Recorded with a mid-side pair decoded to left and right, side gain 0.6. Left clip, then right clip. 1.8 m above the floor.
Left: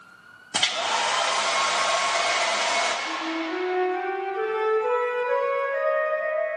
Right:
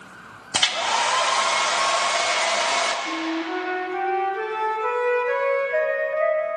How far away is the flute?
About 1.4 m.